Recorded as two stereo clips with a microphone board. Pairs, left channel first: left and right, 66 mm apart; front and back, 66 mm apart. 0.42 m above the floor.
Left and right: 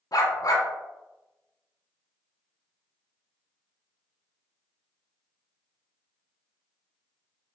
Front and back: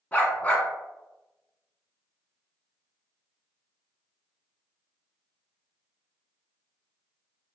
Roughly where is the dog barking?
Left.